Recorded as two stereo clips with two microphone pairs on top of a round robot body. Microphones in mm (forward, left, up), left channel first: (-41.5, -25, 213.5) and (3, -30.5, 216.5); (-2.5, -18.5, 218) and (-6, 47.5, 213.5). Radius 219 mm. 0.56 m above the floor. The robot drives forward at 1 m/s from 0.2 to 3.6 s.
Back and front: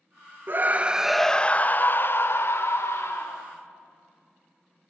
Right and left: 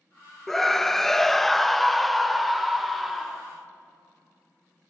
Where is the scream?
Straight ahead, 1.0 m; by 3.5 s straight behind, 2.5 m.